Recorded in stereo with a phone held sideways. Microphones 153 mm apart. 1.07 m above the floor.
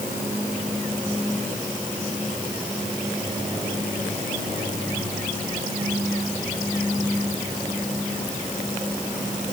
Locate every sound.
Only background noise.